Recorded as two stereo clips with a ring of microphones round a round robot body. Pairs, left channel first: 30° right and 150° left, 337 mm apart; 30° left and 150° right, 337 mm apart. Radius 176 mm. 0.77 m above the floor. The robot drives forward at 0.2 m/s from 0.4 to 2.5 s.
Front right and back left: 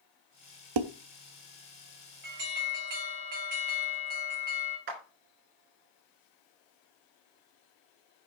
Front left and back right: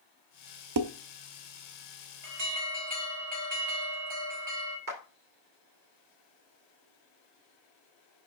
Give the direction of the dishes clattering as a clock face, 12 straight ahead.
6 o'clock.